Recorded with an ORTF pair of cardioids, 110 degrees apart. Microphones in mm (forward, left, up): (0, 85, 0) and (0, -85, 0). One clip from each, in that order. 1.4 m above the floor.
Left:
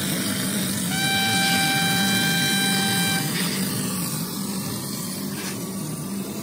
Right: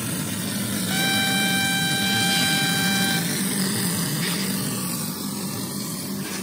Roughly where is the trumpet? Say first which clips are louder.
Even; ahead.